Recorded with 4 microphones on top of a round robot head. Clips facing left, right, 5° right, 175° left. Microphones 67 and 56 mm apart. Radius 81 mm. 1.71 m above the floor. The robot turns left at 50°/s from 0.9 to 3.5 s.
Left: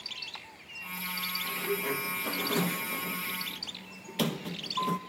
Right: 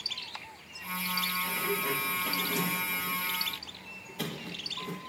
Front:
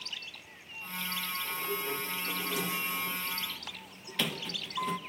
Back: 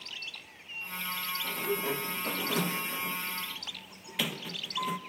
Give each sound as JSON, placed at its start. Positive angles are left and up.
{"t": 1.4, "sound": "a sliding door", "azimuth_deg": -165, "distance_m": 1.4}